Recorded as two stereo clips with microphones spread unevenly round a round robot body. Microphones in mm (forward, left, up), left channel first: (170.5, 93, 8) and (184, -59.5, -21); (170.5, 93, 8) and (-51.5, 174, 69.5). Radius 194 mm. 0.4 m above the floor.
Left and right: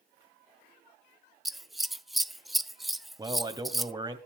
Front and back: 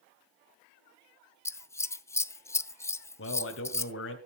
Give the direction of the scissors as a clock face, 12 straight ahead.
1 o'clock.